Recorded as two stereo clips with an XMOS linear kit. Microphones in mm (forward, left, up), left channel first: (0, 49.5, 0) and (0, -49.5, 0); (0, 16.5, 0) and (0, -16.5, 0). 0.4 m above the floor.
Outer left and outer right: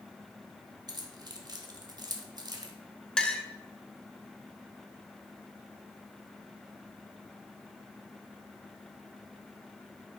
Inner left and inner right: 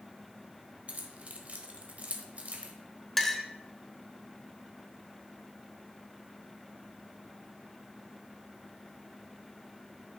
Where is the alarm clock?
I don't hear an alarm clock.